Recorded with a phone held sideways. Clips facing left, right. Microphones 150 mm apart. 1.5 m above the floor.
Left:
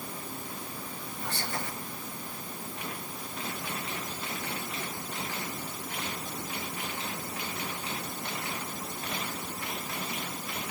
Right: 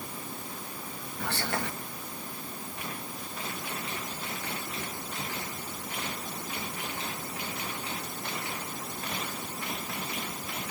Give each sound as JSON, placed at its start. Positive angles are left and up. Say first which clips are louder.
{"t": 1.2, "sound": "whispering", "louder": "right 4 dB", "side_deg": -80, "distance_m": 1.8}